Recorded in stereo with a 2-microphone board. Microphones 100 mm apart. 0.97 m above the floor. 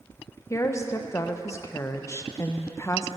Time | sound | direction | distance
0.5 | a woman speaking | 30° left (ahead or behind) | 0.5 m